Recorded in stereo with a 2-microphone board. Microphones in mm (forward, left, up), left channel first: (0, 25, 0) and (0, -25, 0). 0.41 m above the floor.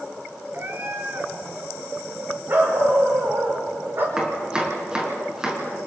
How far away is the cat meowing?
About 2 m.